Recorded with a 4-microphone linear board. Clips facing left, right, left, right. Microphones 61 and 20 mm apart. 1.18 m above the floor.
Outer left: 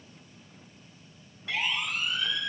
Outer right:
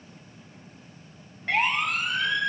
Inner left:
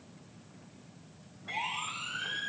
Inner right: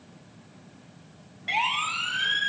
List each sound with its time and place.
1.5 s a siren: 50° right (ahead or behind), 4 m; by 2.5 s 60° right (ahead or behind), 4.5 m